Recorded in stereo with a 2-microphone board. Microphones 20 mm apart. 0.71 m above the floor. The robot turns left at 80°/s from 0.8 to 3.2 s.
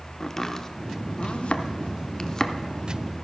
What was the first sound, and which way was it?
Chopping, 25° left (ahead or behind).